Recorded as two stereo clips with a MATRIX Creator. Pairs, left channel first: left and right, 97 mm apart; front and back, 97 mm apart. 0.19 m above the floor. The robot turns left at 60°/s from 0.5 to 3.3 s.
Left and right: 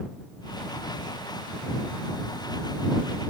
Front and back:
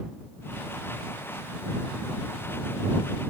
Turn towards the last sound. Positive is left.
No sound to turn to.